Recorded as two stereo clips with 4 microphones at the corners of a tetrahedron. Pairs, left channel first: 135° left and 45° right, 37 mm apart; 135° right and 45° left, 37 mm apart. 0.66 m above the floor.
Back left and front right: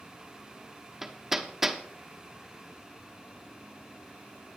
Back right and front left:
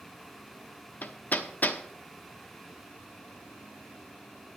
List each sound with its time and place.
1.0 s hammering: 125° right, 0.9 m